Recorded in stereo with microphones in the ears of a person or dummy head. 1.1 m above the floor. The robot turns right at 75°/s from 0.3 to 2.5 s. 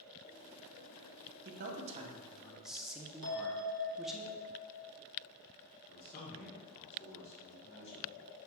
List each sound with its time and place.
1.4 s a man speaking: 85° right, 0.5 m; by 4.2 s 5° right, 0.5 m
3.2 s a bell: 50° right (ahead or behind), 0.8 m
5.9 s a man speaking: 35° left (ahead or behind), 0.9 m